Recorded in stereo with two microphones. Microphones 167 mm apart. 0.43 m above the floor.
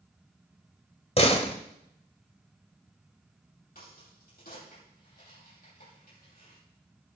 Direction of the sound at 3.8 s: 65° left (ahead or behind).